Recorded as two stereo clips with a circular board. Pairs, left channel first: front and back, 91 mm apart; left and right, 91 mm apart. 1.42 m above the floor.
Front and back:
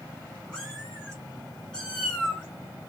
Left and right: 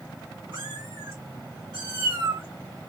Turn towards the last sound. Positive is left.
turn(degrees=-80)